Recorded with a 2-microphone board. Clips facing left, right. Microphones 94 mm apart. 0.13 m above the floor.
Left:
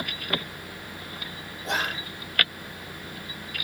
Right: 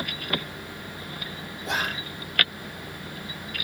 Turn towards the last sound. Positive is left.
turn(degrees=0)  # may be behind; listen again after turning